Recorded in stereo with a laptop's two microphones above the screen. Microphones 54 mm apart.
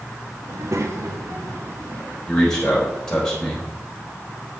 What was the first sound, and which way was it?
A child speaking, 55° right (ahead or behind).